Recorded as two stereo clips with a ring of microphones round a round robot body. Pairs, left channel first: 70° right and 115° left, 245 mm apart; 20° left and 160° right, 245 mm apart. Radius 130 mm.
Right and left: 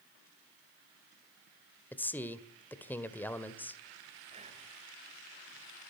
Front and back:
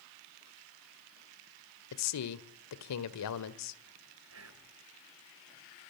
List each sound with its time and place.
1.9 s a man speaking: 15° left, 2.0 m
4.3 s whispering: 175° left, 3.5 m